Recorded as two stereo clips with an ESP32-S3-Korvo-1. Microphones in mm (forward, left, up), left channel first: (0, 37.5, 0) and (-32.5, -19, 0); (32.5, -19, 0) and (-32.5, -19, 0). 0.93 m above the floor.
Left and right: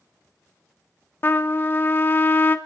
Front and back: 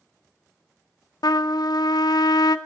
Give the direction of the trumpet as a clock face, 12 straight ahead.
12 o'clock.